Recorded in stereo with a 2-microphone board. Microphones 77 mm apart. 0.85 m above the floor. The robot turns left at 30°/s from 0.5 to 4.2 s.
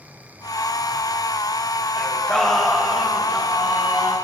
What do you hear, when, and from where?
2.0 s singing: 25° left, 1.2 m; by 4.2 s 40° right, 1.2 m